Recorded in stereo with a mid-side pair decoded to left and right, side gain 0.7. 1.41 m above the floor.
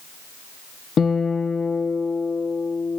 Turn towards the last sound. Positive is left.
turn(degrees=35)